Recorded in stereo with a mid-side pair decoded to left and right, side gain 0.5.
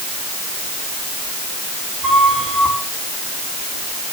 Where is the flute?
40° right, 6 m.